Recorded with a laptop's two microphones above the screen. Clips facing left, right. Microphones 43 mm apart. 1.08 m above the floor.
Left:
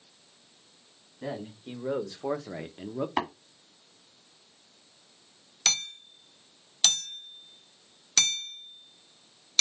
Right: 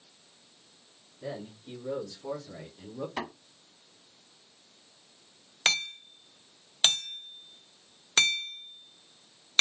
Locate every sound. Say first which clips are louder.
1.2 s a man speaking: left 3 dB; 40° left (ahead or behind), 1.5 m; by 3.1 s 45° left (ahead or behind), 0.9 m
3.2 s tapping: left 7 dB; 40° left (ahead or behind), 1.4 m
5.7 s hammering: right 4 dB; 30° right (ahead or behind), 1.5 m